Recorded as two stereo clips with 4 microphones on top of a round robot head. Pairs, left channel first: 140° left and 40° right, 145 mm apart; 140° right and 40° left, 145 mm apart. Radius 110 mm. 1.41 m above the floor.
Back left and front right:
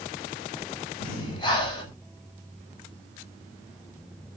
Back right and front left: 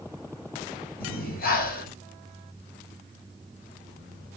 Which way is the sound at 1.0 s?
160° right.